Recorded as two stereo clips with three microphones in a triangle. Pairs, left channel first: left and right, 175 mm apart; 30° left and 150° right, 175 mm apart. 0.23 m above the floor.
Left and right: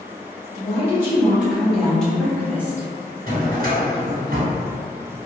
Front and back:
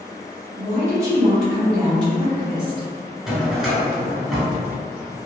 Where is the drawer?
65° right, 1.2 m.